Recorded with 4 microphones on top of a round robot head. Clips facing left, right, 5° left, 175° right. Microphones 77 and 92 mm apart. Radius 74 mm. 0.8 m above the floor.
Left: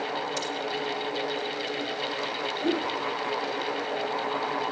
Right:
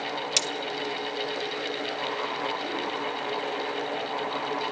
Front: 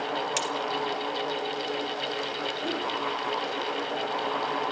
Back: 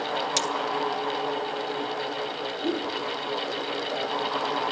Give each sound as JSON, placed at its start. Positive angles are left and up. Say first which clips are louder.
{"t": 0.4, "sound": "cutlery clinking", "louder": "even, back 2 dB", "azimuth_deg": -100, "distance_m": 1.4}
{"t": 2.6, "sound": "a whoosh", "louder": "left 4 dB, back 4 dB", "azimuth_deg": 105, "distance_m": 5.5}